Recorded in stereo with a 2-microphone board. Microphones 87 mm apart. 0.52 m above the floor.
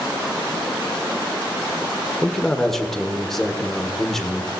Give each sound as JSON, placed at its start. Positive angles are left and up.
{"t": 2.2, "sound": "a man speaking", "side_deg": 5, "distance_m": 1.5}